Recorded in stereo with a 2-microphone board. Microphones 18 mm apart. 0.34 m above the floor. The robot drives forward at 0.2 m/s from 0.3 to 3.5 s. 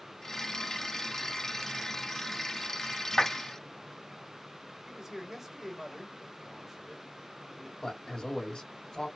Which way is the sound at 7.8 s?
50° left (ahead or behind).